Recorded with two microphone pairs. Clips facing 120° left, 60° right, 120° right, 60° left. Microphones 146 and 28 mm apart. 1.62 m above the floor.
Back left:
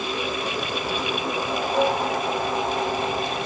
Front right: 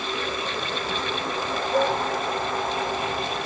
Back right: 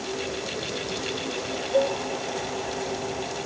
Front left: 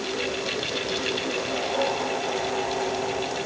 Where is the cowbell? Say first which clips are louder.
Back left 1 dB, back right 4 dB; 50° right, 4.5 m.